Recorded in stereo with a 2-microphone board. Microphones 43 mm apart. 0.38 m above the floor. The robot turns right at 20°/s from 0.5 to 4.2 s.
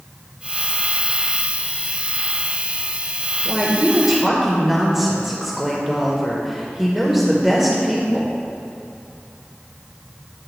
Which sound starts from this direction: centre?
A woman speaking, at 3.5 s.